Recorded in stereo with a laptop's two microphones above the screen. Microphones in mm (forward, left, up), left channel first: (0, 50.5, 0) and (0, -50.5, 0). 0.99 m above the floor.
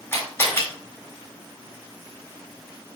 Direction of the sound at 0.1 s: 20° left (ahead or behind).